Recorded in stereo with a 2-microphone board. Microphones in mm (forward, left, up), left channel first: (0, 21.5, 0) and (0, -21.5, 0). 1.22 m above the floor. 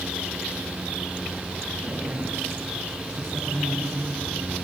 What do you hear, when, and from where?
1.8 s a woman speaking: 90° right, 8.5 m; by 4.2 s 85° right, 11 m